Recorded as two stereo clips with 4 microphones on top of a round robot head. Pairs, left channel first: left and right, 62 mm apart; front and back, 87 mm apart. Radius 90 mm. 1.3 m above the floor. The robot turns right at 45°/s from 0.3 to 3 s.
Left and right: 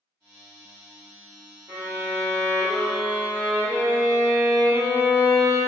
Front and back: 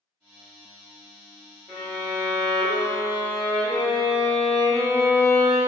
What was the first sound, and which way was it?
A violin, 85° right.